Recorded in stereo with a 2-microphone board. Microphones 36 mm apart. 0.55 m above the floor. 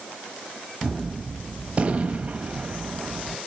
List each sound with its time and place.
0.8 s a gunshot: 35° right (ahead or behind), 1.3 m